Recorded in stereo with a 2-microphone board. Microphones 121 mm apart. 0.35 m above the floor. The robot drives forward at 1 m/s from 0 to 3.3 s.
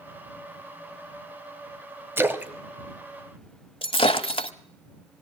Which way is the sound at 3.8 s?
50° left (ahead or behind).